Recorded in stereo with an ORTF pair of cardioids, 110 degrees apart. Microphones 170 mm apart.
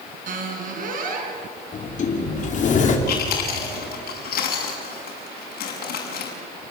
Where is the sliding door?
45° left, 4 m.